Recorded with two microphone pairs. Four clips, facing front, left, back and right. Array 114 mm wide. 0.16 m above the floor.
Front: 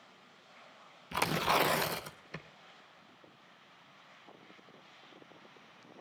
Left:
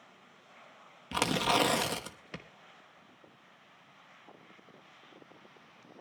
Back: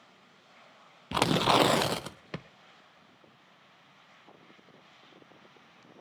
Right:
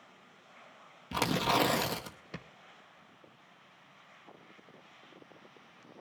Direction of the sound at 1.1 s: 175° left.